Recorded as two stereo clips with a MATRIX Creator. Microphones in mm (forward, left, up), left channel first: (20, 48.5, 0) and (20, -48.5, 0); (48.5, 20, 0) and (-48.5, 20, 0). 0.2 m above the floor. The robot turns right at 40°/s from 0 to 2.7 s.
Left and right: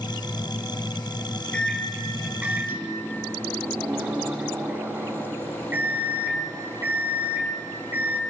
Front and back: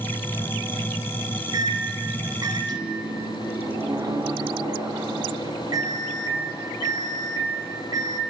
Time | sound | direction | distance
1.5 | a microwave | 160° left | 1.1 m